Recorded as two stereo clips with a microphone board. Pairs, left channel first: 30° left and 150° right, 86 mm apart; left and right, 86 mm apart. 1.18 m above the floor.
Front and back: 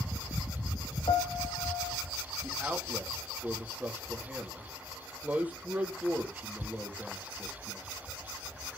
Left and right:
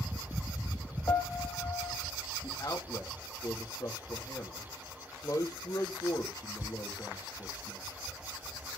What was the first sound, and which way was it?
A piano, 40° left.